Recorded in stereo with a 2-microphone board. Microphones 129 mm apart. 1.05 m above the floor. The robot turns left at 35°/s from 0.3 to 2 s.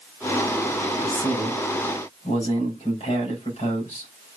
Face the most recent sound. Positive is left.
turn(degrees=115)